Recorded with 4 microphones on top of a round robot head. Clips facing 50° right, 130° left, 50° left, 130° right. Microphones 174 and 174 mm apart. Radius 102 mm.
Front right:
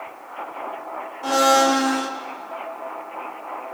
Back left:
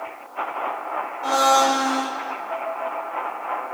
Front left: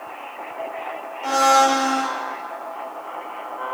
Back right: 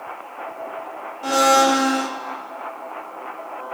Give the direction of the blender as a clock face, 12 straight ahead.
4 o'clock.